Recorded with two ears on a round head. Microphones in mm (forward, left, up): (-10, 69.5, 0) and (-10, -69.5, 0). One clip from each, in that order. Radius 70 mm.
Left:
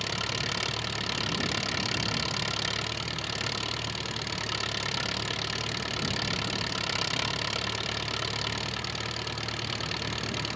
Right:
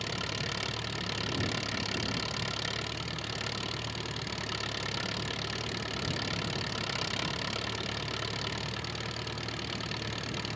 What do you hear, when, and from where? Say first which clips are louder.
0.0 s an engine running: left 4 dB; 20° left (ahead or behind)